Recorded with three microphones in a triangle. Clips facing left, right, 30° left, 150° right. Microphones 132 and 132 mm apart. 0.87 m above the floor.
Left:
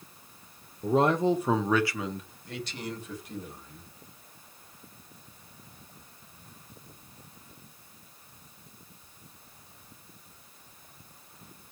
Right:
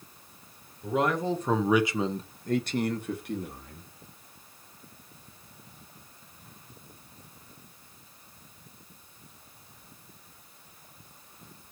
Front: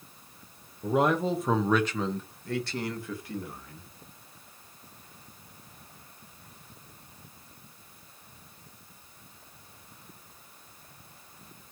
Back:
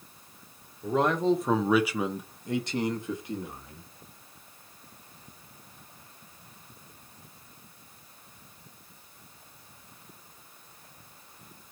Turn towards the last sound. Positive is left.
turn(degrees=-80)